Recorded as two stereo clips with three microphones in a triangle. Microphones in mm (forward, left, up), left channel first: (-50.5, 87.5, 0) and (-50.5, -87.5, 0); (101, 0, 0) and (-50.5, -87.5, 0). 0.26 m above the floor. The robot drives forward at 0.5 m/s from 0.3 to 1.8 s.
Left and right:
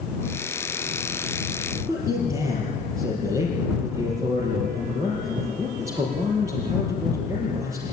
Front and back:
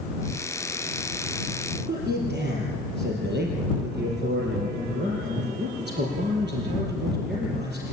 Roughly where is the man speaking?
Behind.